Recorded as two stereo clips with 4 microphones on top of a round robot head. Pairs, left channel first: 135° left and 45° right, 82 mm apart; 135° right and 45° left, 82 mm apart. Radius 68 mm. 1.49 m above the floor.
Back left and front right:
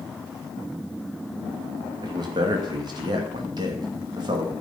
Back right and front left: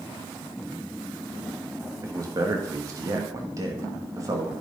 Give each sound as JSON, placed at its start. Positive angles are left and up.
{"t": 2.0, "sound": "a man speaking", "azimuth_deg": -5, "distance_m": 2.5}